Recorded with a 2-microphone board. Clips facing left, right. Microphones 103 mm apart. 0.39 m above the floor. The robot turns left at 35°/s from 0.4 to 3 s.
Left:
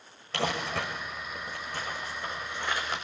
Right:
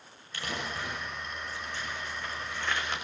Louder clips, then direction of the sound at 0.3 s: Left 6 dB; 90° left.